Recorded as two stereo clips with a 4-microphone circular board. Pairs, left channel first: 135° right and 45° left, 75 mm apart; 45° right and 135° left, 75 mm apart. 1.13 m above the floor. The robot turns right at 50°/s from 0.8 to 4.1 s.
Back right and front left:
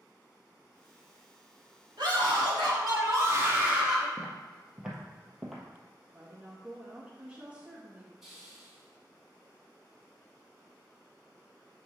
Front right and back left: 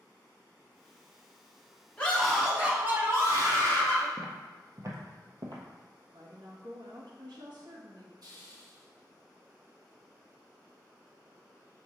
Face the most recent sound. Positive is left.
turn(degrees=130)